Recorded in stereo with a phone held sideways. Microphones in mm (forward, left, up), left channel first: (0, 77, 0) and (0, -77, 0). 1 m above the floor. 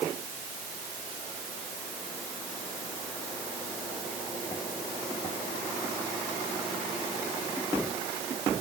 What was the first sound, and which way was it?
Only background noise.